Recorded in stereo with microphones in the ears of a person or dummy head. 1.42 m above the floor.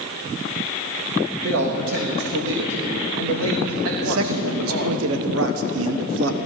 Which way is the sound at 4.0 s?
70° right (ahead or behind).